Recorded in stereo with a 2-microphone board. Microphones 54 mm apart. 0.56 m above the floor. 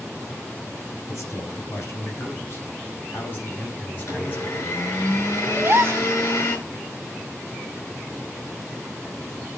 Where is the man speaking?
55° left (ahead or behind), 5 m; by 4.8 s 30° left (ahead or behind), 5 m.